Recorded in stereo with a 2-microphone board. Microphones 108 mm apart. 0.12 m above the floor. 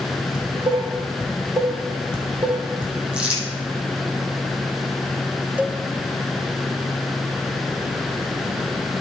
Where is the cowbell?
15° right (ahead or behind), 0.5 m.